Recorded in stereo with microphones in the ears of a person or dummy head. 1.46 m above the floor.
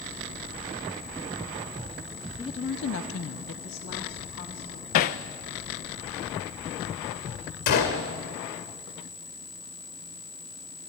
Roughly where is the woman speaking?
Centre.